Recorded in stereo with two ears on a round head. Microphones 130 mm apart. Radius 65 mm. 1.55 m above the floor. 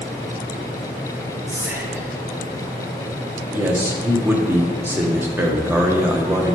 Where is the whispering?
20° right (ahead or behind), 1.4 m.